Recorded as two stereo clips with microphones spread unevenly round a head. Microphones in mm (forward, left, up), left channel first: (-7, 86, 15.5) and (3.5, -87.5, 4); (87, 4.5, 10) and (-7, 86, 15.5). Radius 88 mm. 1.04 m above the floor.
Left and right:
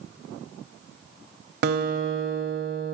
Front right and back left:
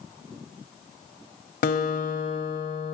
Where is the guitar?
55° right, 1.6 m.